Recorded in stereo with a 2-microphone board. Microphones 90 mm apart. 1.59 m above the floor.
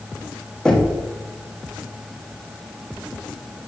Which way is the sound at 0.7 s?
5° left (ahead or behind).